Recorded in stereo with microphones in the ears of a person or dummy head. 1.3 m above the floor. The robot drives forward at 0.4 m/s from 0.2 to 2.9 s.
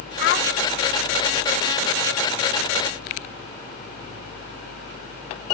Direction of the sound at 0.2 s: 60° left (ahead or behind).